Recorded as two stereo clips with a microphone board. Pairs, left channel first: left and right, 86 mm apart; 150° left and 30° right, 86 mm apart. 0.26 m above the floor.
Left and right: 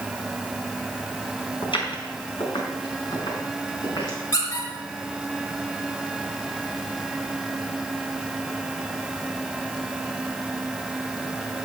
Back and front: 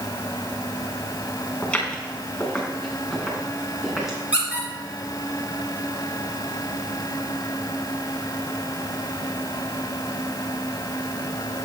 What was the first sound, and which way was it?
Footsteps, 70° left.